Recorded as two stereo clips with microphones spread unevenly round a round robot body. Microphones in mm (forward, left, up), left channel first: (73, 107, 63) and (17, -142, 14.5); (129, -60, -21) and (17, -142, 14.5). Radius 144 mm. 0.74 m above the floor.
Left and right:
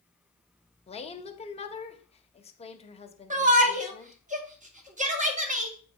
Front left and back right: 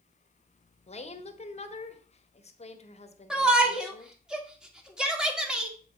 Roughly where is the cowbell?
No cowbell in this recording.